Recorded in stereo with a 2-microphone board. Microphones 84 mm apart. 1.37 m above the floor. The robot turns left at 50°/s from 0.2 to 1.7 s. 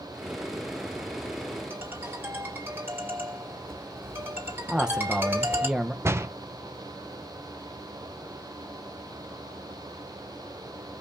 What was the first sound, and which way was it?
A ringtone, 25° right (ahead or behind).